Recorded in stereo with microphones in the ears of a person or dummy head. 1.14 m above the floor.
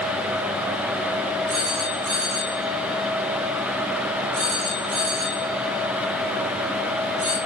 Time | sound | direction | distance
1.5 | a phone ringing | 90° right | 5 m